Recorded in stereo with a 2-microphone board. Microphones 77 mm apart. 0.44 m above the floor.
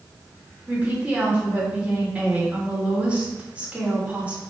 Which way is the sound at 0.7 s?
20° right (ahead or behind).